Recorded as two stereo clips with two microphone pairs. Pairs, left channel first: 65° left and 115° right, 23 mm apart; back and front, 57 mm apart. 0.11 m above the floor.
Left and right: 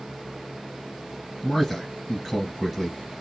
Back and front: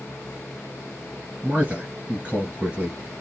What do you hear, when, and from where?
1.4 s a man speaking: 20° right, 1.7 m